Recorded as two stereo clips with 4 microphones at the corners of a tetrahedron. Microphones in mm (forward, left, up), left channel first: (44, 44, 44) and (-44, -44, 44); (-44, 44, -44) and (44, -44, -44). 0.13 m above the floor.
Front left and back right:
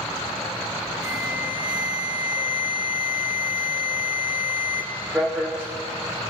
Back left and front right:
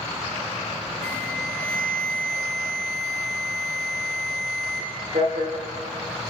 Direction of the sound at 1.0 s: 50° right.